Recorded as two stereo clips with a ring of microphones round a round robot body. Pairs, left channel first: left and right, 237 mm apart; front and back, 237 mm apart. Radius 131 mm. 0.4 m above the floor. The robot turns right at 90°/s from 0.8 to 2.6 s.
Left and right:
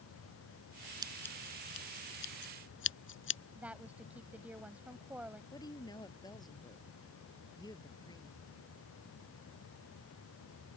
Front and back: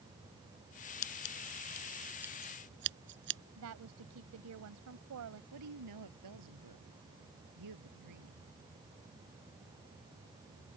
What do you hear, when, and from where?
1.0 s scissors: 15° right; by 3.4 s 130° left
3.6 s a woman speaking: 175° right
5.5 s a woman speaking: 165° left